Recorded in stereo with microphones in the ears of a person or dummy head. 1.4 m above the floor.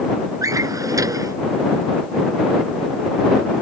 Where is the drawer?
20° right (ahead or behind).